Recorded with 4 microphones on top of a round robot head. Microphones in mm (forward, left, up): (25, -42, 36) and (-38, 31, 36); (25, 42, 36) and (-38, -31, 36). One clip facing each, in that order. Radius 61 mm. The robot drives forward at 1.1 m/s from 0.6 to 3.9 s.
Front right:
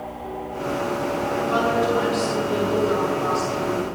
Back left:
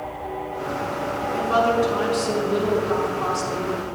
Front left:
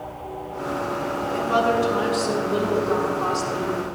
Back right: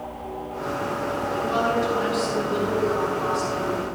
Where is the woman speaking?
80° left, 5.5 m; by 3.8 s 110° left, 6 m.